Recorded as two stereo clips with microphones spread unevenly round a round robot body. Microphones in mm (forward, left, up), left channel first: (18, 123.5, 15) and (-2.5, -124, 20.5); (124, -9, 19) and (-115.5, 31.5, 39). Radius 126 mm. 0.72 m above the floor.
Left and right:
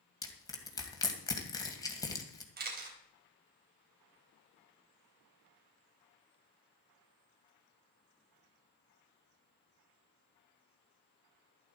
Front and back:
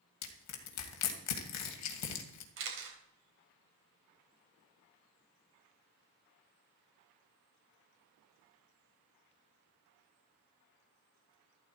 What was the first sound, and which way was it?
Crushing, 10° left.